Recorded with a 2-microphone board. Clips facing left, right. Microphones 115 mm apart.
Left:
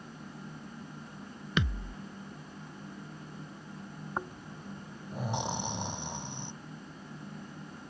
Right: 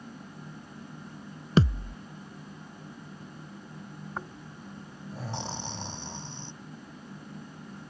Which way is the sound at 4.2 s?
15° left (ahead or behind).